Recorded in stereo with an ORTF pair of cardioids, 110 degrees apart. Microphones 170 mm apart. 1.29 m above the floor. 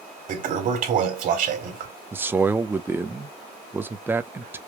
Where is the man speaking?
15° right, 0.7 m.